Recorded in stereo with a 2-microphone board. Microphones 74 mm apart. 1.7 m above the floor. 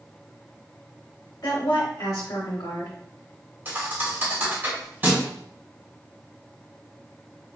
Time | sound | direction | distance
1.4 | a woman speaking | 60° left (ahead or behind) | 1.0 m
3.6 | a thud | 30° right (ahead or behind) | 1.8 m